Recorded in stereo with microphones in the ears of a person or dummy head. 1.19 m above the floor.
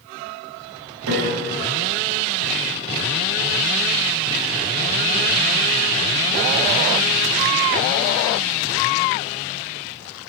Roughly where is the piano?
Right.